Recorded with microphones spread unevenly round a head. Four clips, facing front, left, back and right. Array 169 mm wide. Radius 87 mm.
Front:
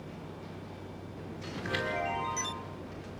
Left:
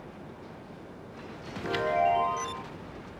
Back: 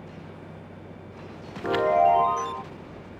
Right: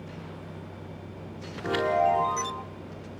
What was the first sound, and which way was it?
A chime, 170° right.